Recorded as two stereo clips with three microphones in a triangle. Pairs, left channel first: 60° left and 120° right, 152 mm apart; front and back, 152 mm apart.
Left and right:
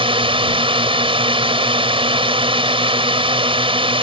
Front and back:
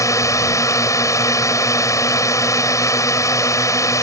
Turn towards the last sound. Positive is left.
turn(degrees=-70)